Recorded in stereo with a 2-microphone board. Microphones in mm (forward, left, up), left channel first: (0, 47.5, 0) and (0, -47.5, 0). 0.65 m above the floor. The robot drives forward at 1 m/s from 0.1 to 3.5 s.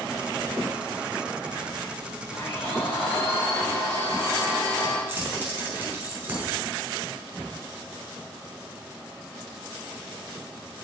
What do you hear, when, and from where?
2.3 s a blender: 85° left, 5 m; by 5.0 s 80° left, 5 m
5.1 s keys jangling: 20° right (ahead or behind), 4.5 m